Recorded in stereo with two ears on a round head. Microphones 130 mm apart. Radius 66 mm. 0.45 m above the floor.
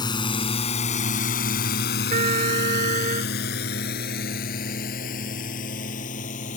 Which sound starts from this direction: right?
A trumpet, at 2.1 s.